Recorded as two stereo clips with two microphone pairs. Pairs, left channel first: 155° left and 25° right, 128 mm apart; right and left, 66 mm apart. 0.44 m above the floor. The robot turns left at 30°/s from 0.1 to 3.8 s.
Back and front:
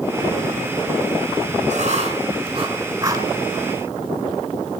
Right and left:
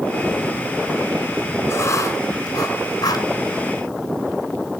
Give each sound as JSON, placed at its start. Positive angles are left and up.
{"t": 1.7, "sound": "writing", "azimuth_deg": -50, "distance_m": 3.5}